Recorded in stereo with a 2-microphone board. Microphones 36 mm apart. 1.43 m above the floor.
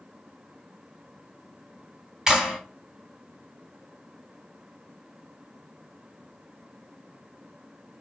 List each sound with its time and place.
2.3 s a clap: 15° right (ahead or behind), 3.5 m